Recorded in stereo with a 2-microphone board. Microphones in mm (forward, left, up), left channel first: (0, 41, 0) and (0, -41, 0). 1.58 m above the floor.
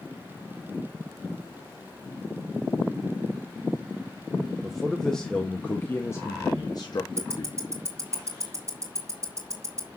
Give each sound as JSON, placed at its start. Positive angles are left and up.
{"t": 4.6, "sound": "a man speaking", "side_deg": 0, "distance_m": 1.5}
{"t": 7.2, "sound": "ticking", "side_deg": -30, "distance_m": 2.5}